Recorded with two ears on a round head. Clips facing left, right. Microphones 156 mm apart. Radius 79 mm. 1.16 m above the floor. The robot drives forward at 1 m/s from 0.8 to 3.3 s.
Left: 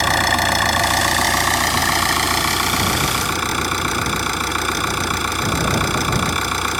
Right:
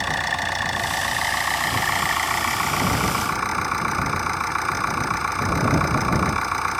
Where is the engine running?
70° left (ahead or behind); by 6.8 s 40° left (ahead or behind).